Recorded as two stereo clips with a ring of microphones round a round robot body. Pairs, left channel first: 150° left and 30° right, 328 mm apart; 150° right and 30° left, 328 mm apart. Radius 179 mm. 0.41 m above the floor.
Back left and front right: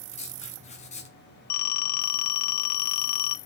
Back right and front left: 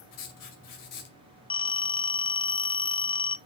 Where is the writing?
140° right, 2.5 m.